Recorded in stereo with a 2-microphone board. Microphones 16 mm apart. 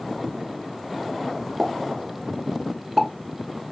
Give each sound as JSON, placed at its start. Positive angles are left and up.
{"t": 1.6, "sound": "a pop", "side_deg": -5, "distance_m": 1.3}